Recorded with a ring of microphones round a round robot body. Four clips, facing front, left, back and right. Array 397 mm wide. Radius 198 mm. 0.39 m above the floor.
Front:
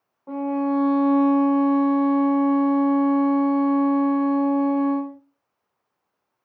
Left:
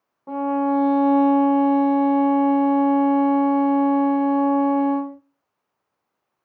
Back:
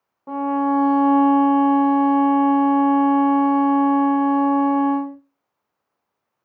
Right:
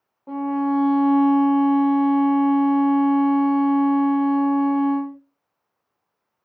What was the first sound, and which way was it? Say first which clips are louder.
A violin: left 1 dB, back 3 dB; 160° left.